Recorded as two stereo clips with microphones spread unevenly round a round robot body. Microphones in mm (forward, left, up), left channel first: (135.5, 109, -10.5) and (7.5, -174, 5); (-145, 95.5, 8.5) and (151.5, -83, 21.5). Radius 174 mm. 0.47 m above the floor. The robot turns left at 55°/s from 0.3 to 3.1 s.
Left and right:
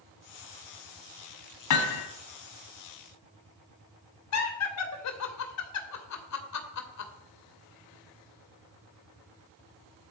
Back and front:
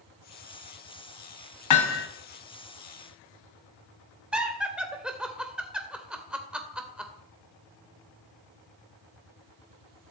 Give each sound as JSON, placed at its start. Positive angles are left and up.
{"t": 1.7, "sound": "hammering", "azimuth_deg": 110, "distance_m": 1.8}
{"t": 4.3, "sound": "laughter", "azimuth_deg": 55, "distance_m": 2.0}